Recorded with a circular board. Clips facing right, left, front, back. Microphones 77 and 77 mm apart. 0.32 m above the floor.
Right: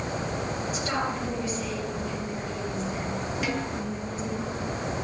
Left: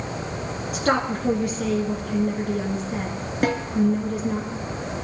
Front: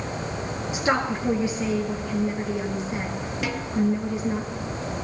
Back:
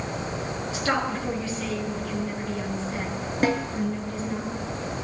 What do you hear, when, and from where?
0.7 s a woman speaking: 70° left, 4 m
3.4 s a snare drum: 130° left, 2 m